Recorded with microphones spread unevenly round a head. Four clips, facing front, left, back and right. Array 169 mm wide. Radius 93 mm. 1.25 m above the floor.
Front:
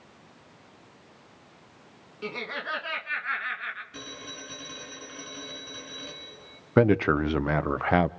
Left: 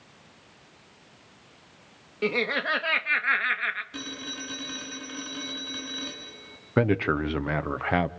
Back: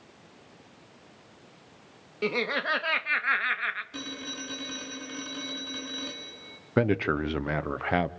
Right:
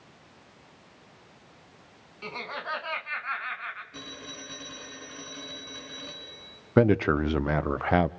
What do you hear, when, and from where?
2.2 s laughter: 135° left, 1.6 m
3.9 s a phone ringing: 175° left, 6.5 m
6.8 s a man speaking: 5° left, 1.0 m